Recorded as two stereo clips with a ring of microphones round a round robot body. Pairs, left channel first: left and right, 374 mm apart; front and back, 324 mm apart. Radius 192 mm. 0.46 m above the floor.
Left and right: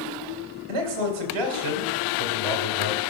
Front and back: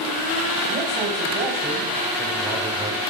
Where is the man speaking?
95° right, 2.5 m.